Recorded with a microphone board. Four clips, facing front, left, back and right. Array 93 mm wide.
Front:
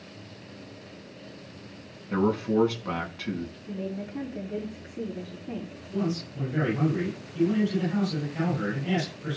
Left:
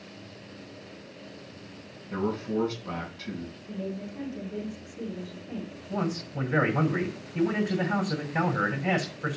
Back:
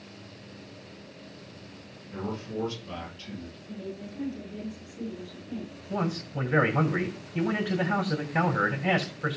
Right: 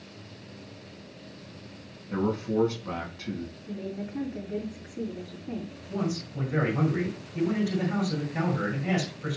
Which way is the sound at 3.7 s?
35° right.